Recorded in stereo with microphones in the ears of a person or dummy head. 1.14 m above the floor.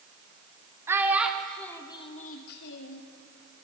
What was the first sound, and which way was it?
A child speaking, 10° right (ahead or behind).